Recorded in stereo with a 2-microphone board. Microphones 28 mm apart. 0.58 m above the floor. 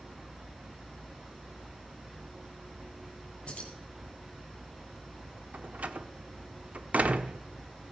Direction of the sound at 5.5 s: 55° right (ahead or behind).